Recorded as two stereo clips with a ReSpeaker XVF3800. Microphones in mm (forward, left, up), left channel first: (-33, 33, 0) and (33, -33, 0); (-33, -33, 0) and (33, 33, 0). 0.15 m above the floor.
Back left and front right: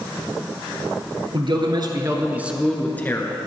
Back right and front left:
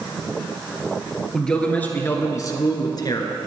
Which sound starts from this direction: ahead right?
A man speaking, at 1.3 s.